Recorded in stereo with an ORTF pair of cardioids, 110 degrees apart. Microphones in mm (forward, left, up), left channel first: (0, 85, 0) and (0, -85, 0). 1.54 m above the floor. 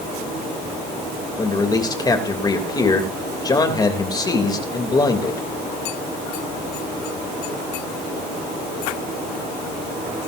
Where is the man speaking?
20° left, 3 m.